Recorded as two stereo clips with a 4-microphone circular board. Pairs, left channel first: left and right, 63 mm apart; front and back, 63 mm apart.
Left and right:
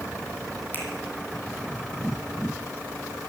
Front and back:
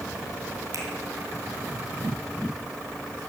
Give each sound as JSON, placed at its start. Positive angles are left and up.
{"t": 0.7, "sound": "a finger snap", "azimuth_deg": 150, "distance_m": 3.0}